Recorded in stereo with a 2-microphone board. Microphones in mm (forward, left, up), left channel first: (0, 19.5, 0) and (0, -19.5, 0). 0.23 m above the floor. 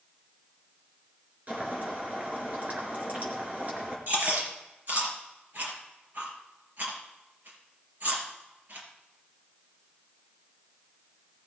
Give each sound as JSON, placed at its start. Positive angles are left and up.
{"t": 1.5, "sound": "boiling", "side_deg": -45, "distance_m": 4.0}
{"t": 4.1, "sound": "chewing", "side_deg": -50, "distance_m": 4.0}